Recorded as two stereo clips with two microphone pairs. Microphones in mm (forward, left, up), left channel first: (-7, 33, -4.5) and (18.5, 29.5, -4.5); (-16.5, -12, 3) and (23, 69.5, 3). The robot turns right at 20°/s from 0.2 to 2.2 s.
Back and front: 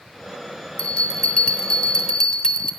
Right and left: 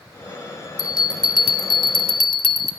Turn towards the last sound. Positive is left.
turn(degrees=-130)